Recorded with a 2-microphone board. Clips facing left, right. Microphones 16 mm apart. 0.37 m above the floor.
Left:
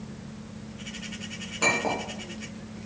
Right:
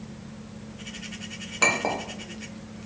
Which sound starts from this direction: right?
A clink, at 1.6 s.